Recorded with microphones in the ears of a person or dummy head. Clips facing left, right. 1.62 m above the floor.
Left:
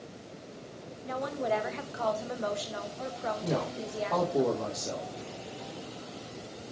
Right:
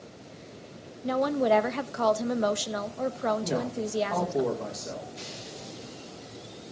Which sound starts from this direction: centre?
A man speaking, at 3.4 s.